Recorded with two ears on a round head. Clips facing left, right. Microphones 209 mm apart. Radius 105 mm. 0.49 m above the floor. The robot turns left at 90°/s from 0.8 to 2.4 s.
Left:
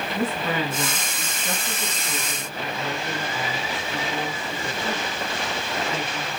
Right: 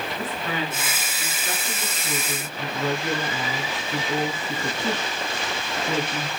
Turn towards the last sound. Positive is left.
turn(degrees=-65)